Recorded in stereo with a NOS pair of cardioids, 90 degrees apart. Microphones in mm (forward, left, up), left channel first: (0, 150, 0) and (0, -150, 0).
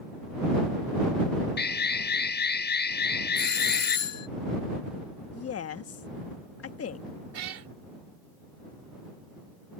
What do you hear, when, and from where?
1.6 s an alarm: 35° left
3.4 s a doorbell: 65° left
5.3 s a woman speaking: 50° left
7.3 s a cat meowing: 55° right